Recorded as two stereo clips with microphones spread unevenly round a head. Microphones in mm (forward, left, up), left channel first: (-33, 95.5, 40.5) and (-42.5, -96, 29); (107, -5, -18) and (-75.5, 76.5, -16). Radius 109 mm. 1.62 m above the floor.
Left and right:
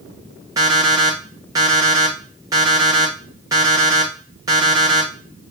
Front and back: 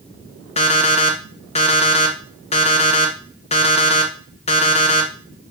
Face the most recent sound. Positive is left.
turn(degrees=-25)